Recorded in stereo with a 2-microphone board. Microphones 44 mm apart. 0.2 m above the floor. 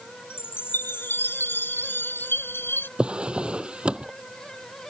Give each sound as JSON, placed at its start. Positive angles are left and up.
{"t": 0.3, "sound": "a chime", "side_deg": 65}
{"t": 3.0, "sound": "a drawer", "side_deg": -25}